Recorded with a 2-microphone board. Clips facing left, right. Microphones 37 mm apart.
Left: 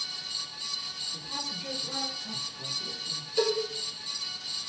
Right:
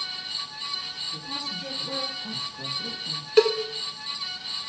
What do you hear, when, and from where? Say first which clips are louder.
1.1 s a woman speaking: right 3 dB; 80° right, 9.5 m
3.4 s a cowbell: right 8 dB; 65° right (ahead or behind), 1.0 m